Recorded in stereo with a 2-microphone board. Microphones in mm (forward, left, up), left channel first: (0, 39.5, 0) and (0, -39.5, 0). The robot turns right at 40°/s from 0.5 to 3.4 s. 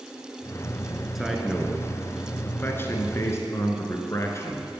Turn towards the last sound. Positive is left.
turn(degrees=80)